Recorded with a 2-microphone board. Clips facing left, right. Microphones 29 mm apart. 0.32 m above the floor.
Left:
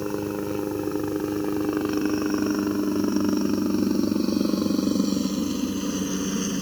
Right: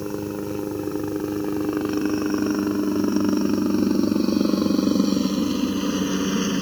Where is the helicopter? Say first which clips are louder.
Even; 10° left (ahead or behind); by 6.6 s 25° right (ahead or behind).